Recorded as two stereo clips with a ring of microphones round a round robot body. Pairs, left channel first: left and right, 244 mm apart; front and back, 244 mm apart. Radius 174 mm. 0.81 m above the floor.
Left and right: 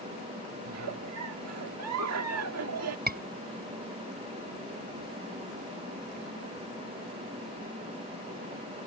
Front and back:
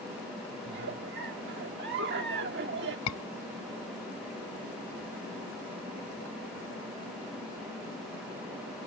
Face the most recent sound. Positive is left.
turn(degrees=-35)